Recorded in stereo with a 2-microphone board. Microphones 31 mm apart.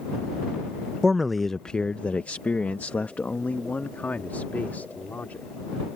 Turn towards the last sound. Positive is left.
turn(degrees=85)